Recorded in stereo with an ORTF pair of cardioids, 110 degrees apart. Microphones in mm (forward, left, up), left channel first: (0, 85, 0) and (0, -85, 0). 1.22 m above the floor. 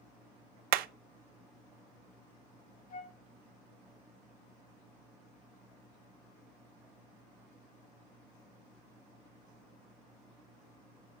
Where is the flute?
50° left, 1.5 m.